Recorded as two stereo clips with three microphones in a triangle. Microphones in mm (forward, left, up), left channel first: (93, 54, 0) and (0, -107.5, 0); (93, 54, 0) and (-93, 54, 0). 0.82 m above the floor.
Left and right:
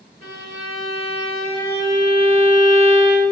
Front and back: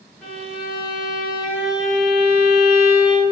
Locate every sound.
0.2 s a violin: 90° right, 1.2 m